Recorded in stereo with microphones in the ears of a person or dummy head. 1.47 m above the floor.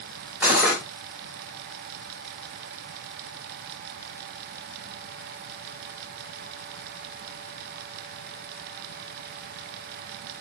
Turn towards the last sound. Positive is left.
turn(degrees=0)  # may be behind; listen again after turning